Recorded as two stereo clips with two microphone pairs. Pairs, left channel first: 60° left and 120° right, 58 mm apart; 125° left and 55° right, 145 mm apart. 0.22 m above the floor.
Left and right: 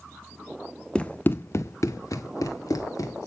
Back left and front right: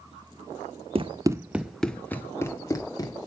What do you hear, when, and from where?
0.9 s running footsteps: 5° right, 0.7 m; by 3.3 s 65° left, 2.0 m